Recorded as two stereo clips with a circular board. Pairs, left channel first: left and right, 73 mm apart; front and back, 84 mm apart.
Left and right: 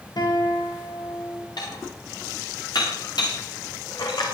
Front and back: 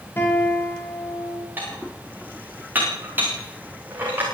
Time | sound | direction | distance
0.2 | a guitar | 65° left | 9 m
1.6 | dishes clattering | 115° left | 10 m